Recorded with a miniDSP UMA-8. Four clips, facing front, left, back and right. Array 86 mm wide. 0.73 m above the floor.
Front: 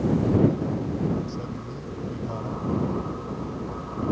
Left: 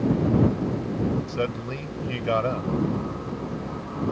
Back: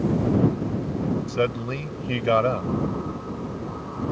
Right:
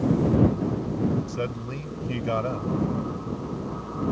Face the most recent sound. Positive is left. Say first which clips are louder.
# left 3 dB, back 9 dB
turn(degrees=170)